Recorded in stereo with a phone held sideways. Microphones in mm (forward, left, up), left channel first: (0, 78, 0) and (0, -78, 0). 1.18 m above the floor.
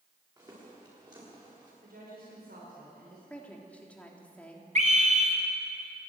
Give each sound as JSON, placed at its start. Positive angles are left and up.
{"t": 0.4, "sound": "footsteps", "side_deg": -25, "distance_m": 9.0}
{"t": 1.8, "sound": "a woman speaking", "side_deg": -85, "distance_m": 5.0}
{"t": 3.3, "sound": "a woman speaking", "side_deg": 10, "distance_m": 3.0}
{"t": 4.8, "sound": "a scream", "side_deg": -50, "distance_m": 4.0}